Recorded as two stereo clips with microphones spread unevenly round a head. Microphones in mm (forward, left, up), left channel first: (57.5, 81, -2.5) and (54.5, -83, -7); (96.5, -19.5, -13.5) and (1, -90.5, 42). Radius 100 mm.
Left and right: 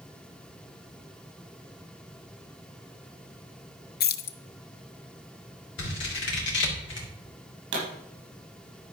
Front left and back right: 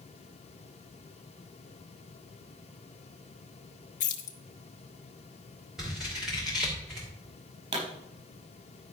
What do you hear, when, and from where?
4.0 s keys jangling: 60° left, 0.7 m
5.8 s scissors: 125° left, 2.5 m
7.7 s a pop: 120° right, 5 m